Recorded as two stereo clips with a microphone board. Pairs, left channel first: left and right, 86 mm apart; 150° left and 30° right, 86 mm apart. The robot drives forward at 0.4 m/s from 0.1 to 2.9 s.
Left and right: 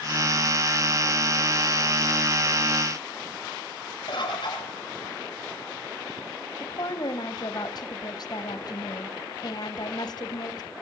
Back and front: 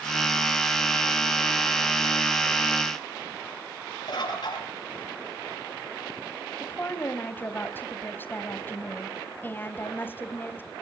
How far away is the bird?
About 4.5 m.